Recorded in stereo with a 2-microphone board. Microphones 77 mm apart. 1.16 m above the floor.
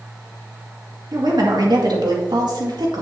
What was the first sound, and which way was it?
A woman speaking, 65° right (ahead or behind).